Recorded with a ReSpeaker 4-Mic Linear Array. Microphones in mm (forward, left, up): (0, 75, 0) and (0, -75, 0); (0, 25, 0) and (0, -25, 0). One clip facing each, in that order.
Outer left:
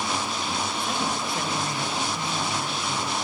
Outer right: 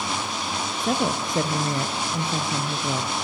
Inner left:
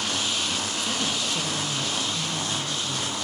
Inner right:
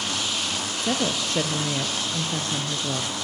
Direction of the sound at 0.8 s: 45° right (ahead or behind).